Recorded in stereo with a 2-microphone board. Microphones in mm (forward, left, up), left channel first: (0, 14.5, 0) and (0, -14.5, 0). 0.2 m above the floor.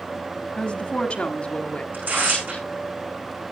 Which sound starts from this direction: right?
Tearing paper, at 1.9 s.